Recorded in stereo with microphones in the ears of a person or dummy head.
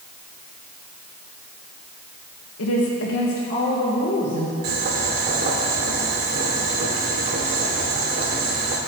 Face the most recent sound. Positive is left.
turn(degrees=-50)  # may be behind; listen again after turning